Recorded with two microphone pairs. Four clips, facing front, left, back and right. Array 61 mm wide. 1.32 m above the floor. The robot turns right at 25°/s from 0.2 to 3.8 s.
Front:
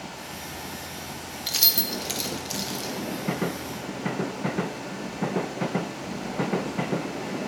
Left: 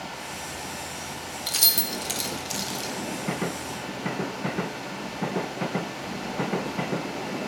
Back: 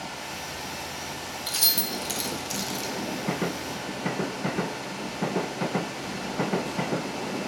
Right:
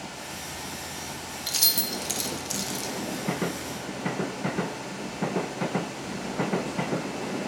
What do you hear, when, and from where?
1.5 s keys jangling: 20° left, 0.6 m; by 2.9 s 60° left, 0.6 m